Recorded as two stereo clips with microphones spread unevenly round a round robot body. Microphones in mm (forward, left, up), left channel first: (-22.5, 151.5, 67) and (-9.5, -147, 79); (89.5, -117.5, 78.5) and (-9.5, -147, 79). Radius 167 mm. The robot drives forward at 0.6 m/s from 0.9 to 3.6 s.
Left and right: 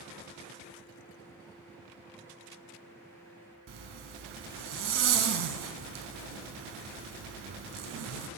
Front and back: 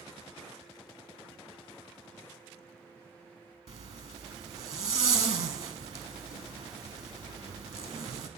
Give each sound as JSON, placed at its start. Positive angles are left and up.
{"t": 3.7, "sound": "a zipper", "azimuth_deg": -135, "distance_m": 0.7}